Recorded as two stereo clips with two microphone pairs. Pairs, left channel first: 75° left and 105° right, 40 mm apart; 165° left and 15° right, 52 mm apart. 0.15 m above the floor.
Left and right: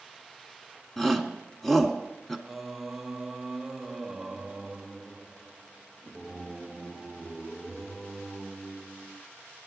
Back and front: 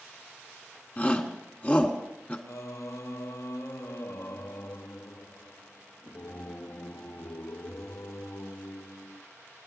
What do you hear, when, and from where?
1.0 s a shout: 155° left, 1.3 m
2.5 s singing: 170° left, 0.7 m